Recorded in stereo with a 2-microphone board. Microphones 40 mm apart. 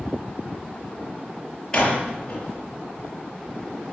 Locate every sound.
1.7 s a door slam: 20° left (ahead or behind), 6 m